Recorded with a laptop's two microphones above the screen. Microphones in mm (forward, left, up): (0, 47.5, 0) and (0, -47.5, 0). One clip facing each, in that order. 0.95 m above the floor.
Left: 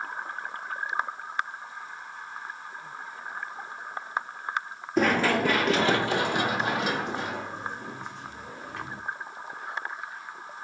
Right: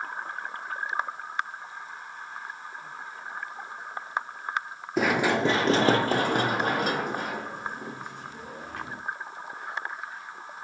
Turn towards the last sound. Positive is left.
turn(degrees=-55)  # may be behind; listen again after turning